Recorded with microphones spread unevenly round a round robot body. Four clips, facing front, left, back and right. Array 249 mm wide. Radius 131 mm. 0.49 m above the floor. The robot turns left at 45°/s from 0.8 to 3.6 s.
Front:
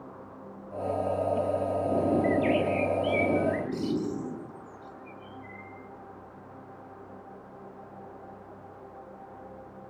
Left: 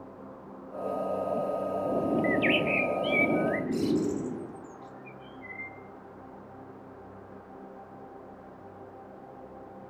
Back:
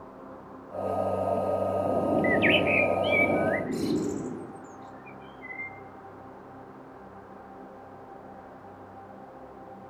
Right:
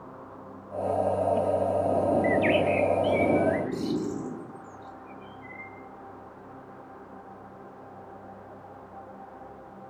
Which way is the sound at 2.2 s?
170° left.